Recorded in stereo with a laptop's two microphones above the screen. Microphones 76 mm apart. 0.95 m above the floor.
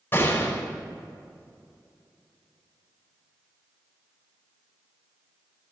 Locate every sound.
0.1 s a gunshot: 30° left (ahead or behind), 4.5 m